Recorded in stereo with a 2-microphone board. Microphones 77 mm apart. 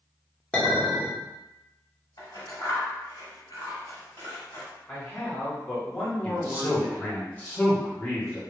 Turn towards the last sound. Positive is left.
turn(degrees=20)  # may be behind; listen again after turning